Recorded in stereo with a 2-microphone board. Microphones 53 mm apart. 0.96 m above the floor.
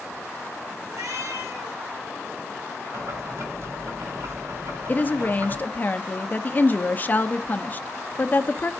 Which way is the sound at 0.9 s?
70° right (ahead or behind).